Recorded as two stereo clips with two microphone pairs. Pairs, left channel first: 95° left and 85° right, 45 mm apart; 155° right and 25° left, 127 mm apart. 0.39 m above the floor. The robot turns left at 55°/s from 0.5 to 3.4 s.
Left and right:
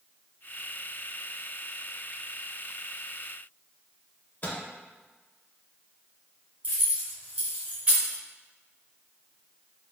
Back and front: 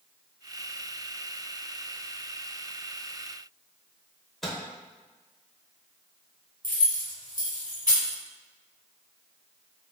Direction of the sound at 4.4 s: 120° left.